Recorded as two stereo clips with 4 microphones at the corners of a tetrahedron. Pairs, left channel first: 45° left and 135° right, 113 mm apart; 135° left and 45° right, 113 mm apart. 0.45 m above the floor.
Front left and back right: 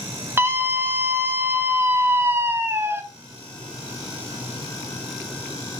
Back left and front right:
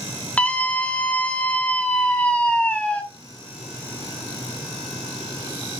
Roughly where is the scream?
Behind.